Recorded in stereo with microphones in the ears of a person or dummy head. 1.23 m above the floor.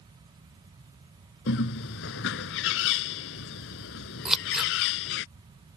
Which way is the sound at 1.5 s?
70° left (ahead or behind).